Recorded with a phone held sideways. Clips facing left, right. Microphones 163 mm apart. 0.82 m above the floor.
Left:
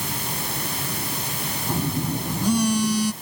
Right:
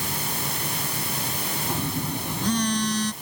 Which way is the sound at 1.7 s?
10° left (ahead or behind).